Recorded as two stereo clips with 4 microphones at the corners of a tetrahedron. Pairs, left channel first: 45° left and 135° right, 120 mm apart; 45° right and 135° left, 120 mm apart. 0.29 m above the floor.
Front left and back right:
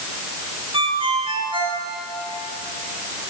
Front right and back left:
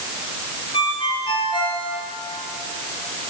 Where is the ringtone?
90° right, 4 m.